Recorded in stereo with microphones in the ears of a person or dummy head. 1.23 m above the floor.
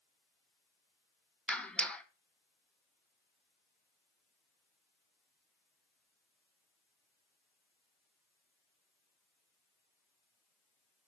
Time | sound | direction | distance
1.5 | a clap | 15° left (ahead or behind) | 1.0 m